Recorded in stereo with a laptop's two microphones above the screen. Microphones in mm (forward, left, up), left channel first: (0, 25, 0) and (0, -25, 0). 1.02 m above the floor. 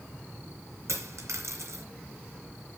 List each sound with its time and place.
0.9 s a dropped coin: 75° right (ahead or behind), 2.5 m